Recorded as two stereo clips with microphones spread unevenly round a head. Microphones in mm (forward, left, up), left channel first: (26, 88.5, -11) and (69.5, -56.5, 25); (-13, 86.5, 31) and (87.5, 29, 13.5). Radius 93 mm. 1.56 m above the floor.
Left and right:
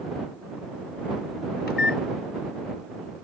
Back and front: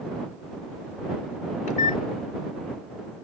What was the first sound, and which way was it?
A microwave, 150° left.